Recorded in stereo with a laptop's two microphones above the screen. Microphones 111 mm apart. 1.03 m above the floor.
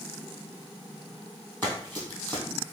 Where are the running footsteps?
15° left (ahead or behind), 1.8 m.